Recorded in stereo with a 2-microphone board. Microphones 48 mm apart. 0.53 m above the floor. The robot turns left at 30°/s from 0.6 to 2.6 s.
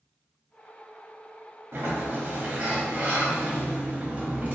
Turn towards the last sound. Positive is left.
turn(degrees=-30)  # may be behind; listen again after turning